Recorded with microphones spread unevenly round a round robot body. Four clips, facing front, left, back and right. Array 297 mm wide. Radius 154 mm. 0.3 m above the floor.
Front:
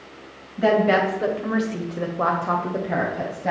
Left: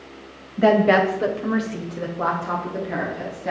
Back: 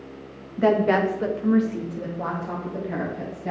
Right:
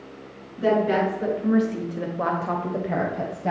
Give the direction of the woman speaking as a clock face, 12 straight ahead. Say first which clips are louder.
Left 5 dB, front 1 dB; 8 o'clock.